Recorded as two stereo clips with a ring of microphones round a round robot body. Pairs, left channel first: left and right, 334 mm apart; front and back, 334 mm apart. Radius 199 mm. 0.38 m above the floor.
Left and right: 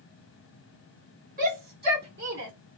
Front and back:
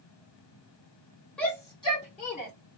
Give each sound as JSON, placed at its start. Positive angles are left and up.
{"t": 1.4, "sound": "a shout", "azimuth_deg": -85, "distance_m": 1.5}